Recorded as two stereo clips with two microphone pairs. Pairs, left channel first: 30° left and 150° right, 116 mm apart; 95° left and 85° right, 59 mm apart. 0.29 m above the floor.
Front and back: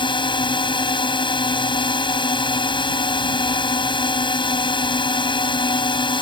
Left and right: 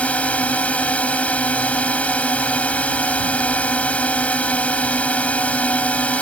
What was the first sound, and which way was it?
A drone, 40° left.